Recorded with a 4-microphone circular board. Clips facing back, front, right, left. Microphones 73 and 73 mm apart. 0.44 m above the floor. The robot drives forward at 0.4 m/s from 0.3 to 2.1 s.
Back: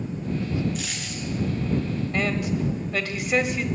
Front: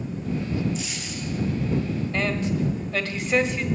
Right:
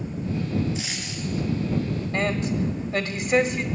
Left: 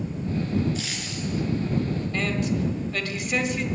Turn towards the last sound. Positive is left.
turn(degrees=-115)